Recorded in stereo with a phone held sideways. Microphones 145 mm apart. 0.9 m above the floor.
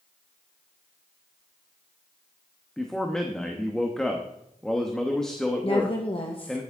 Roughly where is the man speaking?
Centre.